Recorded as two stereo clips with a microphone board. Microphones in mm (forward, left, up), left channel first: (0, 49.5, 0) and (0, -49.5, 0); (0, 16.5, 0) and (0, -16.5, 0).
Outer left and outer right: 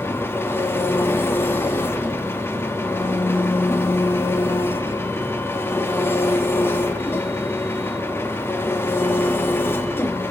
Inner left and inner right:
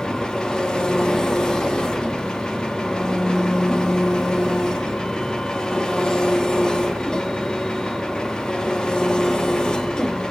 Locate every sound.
0.0 s an engine running: 25° left (ahead or behind), 1.4 m